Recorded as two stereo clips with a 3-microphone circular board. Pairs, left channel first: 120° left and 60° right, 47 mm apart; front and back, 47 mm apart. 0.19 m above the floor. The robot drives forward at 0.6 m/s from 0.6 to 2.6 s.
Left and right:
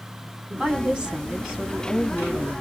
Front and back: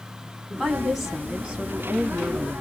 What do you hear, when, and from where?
0.5 s a woman speaking: 85° right, 1.2 m; by 2.6 s 155° right, 1.7 m